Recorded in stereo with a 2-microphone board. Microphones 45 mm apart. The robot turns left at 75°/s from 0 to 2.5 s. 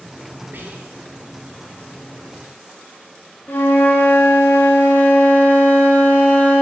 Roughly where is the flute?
Left.